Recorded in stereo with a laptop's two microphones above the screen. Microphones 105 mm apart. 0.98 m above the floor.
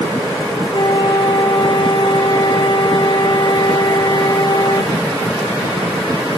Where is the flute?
50° left (ahead or behind), 1.6 m.